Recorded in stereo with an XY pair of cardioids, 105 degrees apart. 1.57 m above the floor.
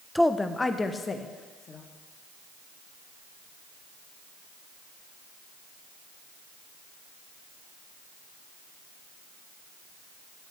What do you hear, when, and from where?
0.1 s a woman speaking: straight ahead, 0.7 m; by 1.8 s 40° left, 2 m